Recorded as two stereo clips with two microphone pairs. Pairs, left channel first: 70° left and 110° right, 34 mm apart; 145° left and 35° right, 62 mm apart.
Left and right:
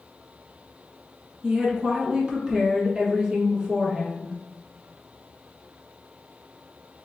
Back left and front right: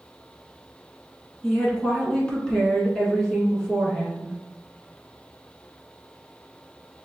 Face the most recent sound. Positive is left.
turn(degrees=-150)